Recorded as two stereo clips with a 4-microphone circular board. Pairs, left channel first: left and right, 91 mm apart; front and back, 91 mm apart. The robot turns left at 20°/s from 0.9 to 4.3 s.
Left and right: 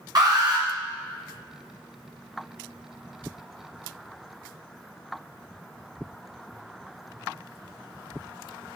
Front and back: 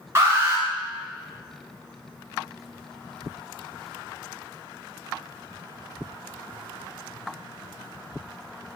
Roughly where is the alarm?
Behind right.